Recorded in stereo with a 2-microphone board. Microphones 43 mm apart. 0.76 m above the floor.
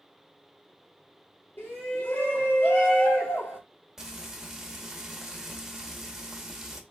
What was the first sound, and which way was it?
A shout, 60° left (ahead or behind).